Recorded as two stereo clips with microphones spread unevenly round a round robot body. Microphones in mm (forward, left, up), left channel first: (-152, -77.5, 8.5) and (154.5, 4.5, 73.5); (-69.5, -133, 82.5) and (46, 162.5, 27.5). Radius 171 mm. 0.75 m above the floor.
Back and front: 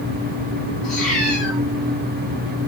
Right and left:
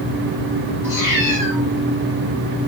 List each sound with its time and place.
0.8 s a cat meowing: 75° right, 8 m